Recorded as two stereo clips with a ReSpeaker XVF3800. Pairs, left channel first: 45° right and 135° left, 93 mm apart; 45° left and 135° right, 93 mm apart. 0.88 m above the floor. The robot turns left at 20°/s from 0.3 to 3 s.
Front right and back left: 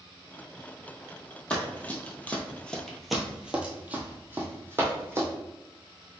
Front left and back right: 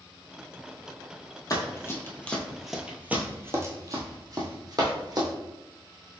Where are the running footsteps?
25° left, 1.1 m; by 5.3 s 165° right, 1.7 m.